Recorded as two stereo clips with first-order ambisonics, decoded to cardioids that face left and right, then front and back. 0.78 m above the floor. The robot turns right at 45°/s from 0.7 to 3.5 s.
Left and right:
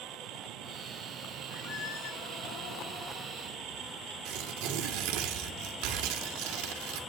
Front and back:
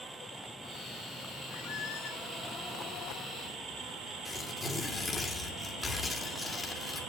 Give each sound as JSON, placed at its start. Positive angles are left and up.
{"t": 1.5, "sound": "a squeak", "azimuth_deg": 25, "distance_m": 9.5}
{"t": 4.2, "sound": "tearing paper", "azimuth_deg": -80, "distance_m": 2.5}